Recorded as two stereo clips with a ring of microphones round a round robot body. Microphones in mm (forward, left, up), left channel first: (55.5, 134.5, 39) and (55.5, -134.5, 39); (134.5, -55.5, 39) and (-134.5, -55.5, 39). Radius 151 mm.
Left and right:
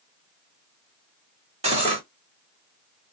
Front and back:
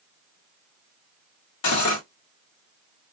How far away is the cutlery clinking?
About 1.2 m.